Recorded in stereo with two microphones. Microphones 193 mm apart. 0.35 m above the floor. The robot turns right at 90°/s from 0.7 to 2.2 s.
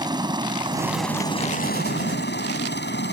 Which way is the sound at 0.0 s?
20° right (ahead or behind).